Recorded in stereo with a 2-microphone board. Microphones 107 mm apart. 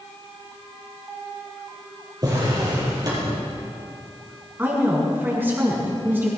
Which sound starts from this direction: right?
A drawer, at 2.2 s.